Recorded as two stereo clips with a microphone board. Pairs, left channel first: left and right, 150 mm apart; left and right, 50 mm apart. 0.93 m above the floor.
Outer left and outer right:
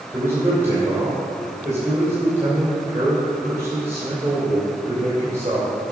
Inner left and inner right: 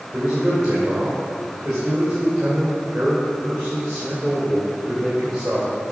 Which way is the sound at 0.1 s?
15° right (ahead or behind).